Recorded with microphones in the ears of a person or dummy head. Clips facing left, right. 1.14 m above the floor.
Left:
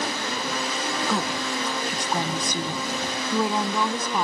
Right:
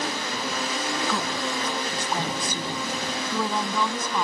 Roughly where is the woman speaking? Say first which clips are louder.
Left 1 dB; centre.